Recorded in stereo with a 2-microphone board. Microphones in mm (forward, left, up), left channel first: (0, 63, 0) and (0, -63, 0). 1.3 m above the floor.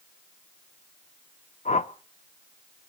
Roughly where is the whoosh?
Left.